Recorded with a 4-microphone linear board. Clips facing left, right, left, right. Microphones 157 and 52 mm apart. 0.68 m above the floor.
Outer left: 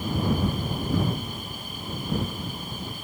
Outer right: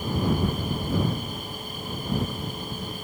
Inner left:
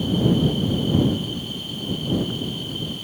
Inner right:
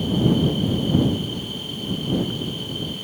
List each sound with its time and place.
Only background noise.